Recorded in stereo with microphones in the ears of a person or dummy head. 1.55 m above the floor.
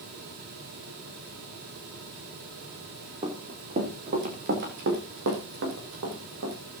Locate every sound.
3.2 s running footsteps: 35° right (ahead or behind), 4.5 m; by 6.6 s 75° right (ahead or behind), 6.5 m